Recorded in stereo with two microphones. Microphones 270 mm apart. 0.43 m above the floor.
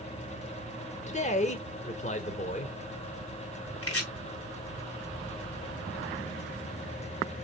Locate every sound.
1.1 s a man speaking: 25° left (ahead or behind), 1.1 m
3.8 s chopping: 60° left (ahead or behind), 1.6 m